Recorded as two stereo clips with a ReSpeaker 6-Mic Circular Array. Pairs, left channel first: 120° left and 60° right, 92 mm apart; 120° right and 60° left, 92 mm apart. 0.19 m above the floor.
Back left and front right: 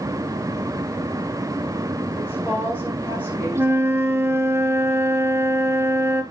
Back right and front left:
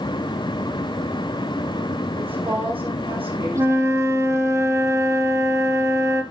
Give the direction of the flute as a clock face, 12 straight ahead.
12 o'clock.